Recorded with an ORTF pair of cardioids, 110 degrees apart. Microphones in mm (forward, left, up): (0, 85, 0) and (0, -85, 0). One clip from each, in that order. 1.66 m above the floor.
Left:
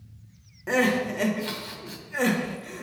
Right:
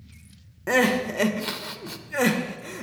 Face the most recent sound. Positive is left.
turn(degrees=-25)